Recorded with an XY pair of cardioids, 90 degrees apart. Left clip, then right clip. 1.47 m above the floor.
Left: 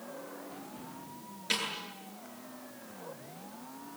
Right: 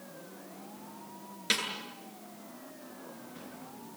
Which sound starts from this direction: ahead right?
A snare drum, at 1.5 s.